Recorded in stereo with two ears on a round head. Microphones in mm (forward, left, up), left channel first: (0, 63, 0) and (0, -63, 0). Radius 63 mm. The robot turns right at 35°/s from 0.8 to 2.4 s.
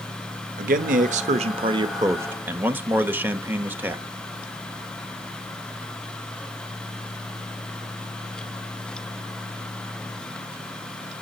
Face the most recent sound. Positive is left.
turn(degrees=-15)